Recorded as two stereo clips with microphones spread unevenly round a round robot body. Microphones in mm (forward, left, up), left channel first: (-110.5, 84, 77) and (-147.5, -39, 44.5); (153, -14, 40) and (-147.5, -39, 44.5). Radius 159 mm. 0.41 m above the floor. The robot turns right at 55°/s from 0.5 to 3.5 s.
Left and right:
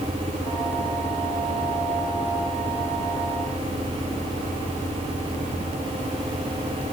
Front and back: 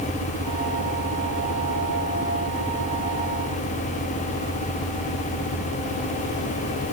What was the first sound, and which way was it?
Only background noise.